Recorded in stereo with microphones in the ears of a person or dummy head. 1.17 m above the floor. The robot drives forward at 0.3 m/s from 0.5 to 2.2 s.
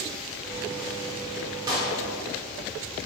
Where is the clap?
15° right (ahead or behind), 3.5 m.